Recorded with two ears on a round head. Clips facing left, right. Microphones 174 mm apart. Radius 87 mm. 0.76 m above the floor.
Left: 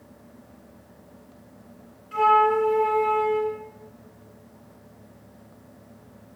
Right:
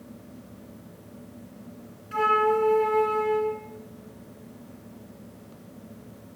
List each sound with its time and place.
2.1 s a flute: 25° right (ahead or behind), 2 m